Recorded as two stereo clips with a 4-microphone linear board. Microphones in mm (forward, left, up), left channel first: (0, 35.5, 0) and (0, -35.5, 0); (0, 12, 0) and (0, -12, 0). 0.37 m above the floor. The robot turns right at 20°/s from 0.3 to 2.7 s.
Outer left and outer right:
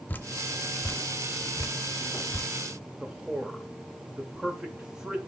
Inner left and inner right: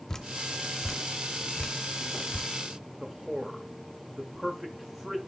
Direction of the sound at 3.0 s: 15° right (ahead or behind).